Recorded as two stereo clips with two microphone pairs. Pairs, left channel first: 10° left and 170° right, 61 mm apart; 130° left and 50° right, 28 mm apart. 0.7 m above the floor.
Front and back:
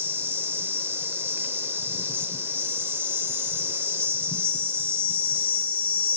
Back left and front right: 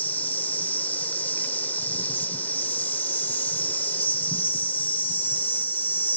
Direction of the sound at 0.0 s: 140° left.